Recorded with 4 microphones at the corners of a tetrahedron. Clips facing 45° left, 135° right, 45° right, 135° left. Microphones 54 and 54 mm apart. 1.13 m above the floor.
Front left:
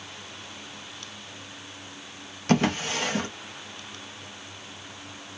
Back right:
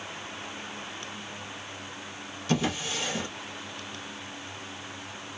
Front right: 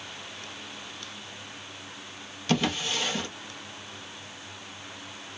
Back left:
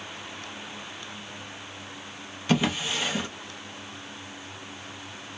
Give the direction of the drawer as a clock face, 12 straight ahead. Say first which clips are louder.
Front left 5 dB, back left 2 dB; 10 o'clock.